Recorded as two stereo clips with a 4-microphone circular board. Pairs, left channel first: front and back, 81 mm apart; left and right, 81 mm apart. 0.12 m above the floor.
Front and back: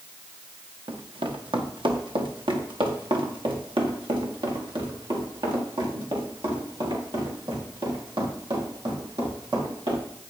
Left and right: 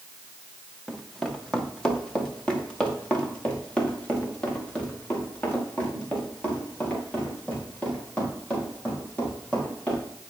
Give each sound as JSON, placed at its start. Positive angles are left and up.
{"t": 0.9, "sound": "running footsteps", "azimuth_deg": 180, "distance_m": 2.0}